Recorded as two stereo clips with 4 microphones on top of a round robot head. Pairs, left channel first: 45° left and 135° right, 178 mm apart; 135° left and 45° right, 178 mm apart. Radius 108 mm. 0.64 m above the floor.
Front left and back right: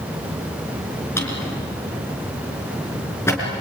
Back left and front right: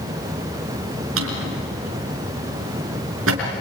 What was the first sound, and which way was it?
A drawer, 35° right.